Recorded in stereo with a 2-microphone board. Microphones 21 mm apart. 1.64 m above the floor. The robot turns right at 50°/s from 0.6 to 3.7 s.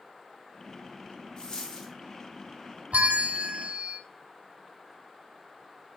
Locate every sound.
1.4 s a dropped coin: 35° left (ahead or behind), 1.8 m; by 1.9 s 10° left (ahead or behind), 1.8 m
2.9 s a bell: 110° right, 0.5 m; by 4.0 s 70° right, 0.5 m